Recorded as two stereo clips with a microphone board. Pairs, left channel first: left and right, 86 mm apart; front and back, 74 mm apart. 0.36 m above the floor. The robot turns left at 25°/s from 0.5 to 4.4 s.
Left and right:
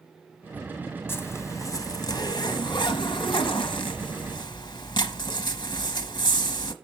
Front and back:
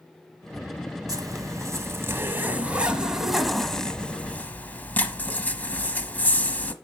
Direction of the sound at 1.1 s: 150° left.